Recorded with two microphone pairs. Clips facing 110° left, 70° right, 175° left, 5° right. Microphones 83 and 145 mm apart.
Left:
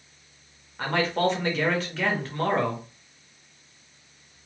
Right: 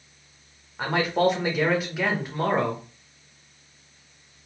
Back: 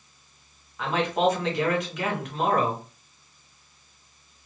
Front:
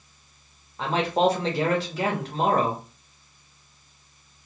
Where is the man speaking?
Straight ahead, 1.0 m.